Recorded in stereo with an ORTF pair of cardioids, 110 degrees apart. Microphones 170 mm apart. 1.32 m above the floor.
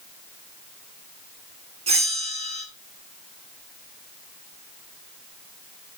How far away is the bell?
About 2.5 m.